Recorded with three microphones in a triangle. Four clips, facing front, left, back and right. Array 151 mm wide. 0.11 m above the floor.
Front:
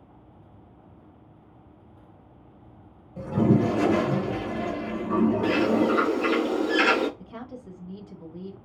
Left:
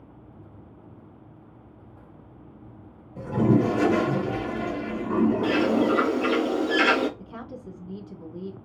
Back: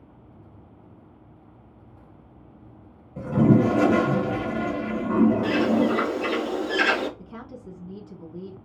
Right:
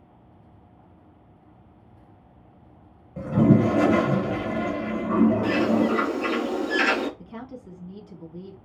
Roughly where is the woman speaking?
Behind left.